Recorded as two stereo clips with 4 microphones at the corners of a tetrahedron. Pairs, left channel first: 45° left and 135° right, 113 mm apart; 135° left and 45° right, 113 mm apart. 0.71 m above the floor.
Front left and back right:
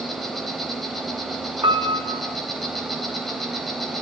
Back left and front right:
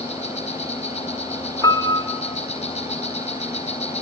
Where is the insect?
135° left, 4 m.